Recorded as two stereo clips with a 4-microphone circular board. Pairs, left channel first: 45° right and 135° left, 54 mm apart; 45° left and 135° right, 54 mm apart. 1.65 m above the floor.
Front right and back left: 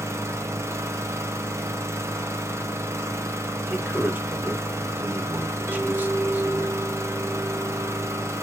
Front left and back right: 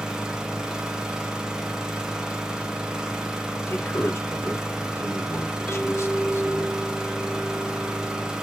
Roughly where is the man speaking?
Left.